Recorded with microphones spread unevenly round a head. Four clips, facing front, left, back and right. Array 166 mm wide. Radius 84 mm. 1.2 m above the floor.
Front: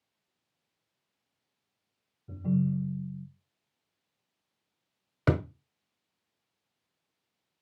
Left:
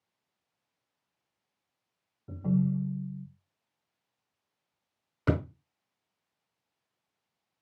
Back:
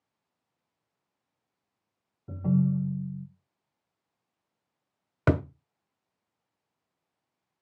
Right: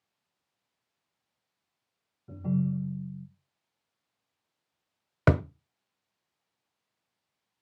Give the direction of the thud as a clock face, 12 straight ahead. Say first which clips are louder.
Right 4 dB, back 2 dB; 3 o'clock.